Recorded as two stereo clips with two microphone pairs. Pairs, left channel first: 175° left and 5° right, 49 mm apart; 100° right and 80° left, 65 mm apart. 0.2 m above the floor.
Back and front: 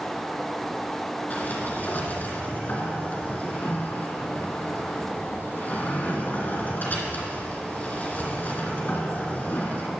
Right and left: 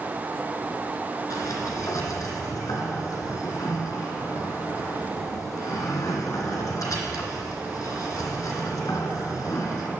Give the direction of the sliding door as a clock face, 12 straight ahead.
5 o'clock.